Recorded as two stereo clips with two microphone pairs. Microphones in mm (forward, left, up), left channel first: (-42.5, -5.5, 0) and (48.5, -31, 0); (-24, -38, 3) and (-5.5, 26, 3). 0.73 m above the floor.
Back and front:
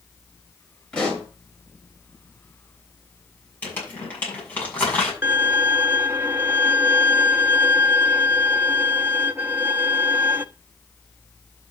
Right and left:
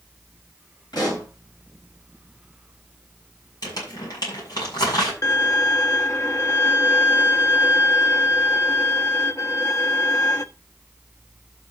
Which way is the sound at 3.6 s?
120° right.